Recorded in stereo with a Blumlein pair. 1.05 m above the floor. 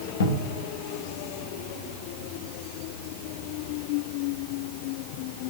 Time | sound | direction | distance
0.2 | a cupboard door | 60° left | 0.9 m